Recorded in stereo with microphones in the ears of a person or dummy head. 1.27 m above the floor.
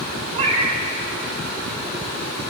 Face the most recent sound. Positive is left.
turn(degrees=-35)  # may be behind; listen again after turning